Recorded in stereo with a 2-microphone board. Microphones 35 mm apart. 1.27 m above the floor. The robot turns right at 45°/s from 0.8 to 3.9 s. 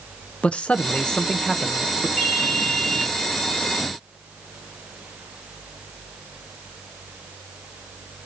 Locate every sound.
0.4 s a man speaking: 145° left, 0.7 m; by 2.1 s 160° right, 0.7 m
2.2 s a ringtone: 135° left, 2.0 m; by 3.1 s 175° left, 2.0 m